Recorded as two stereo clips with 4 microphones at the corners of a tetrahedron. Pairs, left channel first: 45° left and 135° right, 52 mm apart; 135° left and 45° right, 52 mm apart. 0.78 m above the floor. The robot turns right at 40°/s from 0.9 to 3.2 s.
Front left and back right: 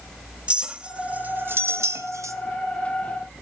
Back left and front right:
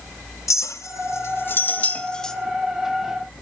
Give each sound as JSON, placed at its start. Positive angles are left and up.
{"t": 0.5, "sound": "a clink", "azimuth_deg": 160, "distance_m": 0.5}